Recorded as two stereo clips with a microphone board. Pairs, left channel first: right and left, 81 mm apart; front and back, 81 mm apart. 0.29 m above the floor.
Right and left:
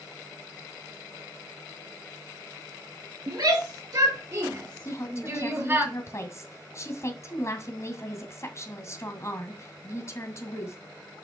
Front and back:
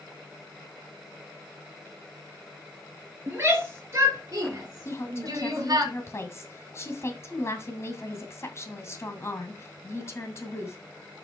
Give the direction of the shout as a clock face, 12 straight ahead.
8 o'clock.